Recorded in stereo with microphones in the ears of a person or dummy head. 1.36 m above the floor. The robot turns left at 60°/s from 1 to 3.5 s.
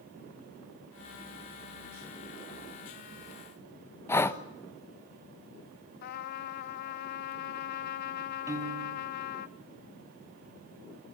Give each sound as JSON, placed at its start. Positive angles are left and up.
{"t": 4.1, "sound": "breathing", "side_deg": 15, "distance_m": 0.9}
{"t": 6.0, "sound": "a trumpet", "side_deg": 55, "distance_m": 0.8}
{"t": 8.5, "sound": "a piano", "side_deg": -15, "distance_m": 1.6}